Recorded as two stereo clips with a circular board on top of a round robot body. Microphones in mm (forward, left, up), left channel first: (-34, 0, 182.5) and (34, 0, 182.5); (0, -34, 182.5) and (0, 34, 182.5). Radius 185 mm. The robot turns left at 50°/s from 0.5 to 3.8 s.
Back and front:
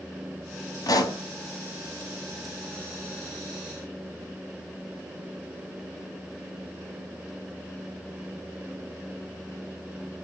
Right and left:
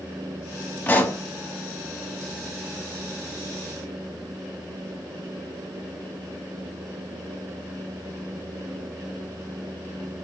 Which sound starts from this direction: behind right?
A pop, at 0.9 s.